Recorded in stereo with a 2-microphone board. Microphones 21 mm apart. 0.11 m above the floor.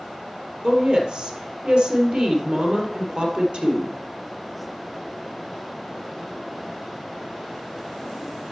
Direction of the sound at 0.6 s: 50° right (ahead or behind).